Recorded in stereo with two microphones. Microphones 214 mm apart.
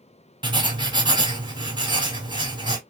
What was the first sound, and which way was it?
Writing, 20° right (ahead or behind).